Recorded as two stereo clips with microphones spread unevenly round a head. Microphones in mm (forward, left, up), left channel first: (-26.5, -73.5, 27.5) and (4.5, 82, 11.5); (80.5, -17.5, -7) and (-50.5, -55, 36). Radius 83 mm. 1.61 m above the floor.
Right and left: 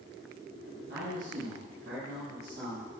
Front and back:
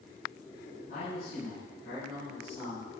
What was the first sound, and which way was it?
A man speaking, 70° left.